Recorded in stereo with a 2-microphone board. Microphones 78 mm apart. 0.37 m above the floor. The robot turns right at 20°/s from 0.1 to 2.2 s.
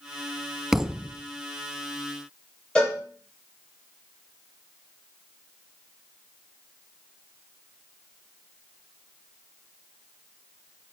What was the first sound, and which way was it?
A thud, 5° right (ahead or behind).